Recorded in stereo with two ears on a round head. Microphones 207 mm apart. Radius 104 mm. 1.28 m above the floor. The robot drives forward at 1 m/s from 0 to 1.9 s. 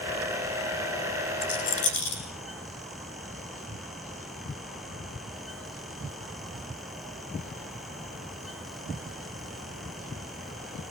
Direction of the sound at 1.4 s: 60° left (ahead or behind).